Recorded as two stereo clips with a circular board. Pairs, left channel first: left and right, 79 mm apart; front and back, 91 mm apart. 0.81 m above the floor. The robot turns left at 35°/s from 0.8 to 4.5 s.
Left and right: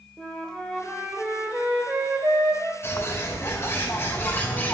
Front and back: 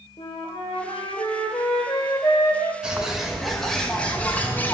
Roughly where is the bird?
Left.